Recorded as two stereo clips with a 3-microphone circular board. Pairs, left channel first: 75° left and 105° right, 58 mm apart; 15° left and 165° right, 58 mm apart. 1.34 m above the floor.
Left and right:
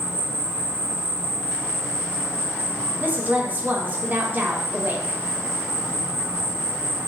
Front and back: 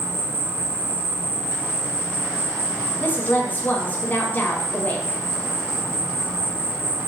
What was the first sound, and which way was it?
An insect, 145° right.